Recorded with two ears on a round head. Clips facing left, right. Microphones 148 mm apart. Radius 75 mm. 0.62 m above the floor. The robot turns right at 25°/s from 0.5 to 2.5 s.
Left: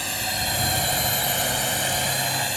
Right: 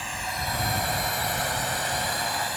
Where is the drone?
40° left (ahead or behind); by 2.6 s 25° left (ahead or behind).